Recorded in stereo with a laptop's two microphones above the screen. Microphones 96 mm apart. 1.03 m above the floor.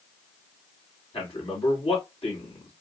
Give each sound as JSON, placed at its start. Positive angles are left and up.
{"t": 1.1, "sound": "a man speaking", "side_deg": 75, "distance_m": 2.5}